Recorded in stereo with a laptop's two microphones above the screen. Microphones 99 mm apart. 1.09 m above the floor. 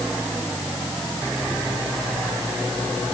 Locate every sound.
Only background noise.